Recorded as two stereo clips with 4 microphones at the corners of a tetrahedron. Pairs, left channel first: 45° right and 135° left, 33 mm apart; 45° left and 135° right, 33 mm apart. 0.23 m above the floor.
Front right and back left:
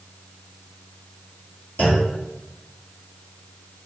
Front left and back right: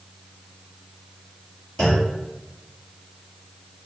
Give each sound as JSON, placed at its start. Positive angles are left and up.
{"t": 1.8, "sound": "a clunk", "azimuth_deg": -25, "distance_m": 1.8}